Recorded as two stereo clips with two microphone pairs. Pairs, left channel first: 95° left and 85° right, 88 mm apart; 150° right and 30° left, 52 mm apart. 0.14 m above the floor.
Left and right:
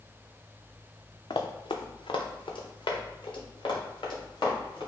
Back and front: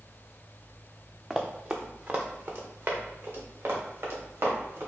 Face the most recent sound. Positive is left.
turn(degrees=65)